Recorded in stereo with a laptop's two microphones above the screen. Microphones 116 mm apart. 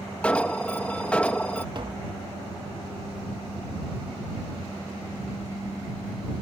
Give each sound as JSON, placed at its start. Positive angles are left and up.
{"t": 0.2, "sound": "an alarm", "side_deg": 10}
{"t": 1.8, "sound": "tapping", "side_deg": -40}